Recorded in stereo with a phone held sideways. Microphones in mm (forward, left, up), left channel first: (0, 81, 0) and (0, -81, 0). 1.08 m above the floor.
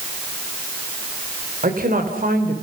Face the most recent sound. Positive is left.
turn(degrees=-60)  # may be behind; listen again after turning